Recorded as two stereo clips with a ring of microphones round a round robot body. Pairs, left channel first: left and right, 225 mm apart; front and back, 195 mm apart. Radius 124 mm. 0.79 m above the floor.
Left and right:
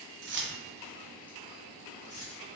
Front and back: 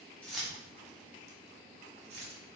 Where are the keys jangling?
85° right, 0.6 m; by 2.4 s 145° left, 1.2 m.